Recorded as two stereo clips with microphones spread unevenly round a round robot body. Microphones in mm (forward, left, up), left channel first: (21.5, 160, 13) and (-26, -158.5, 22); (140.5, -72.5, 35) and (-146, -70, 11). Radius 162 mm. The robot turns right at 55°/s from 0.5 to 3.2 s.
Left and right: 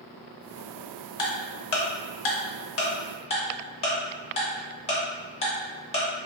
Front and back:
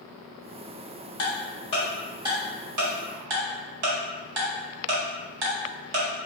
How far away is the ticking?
About 0.7 m.